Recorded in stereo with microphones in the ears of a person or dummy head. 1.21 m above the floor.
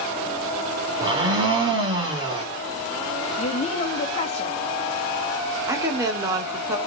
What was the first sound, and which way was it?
A blender, 20° right (ahead or behind).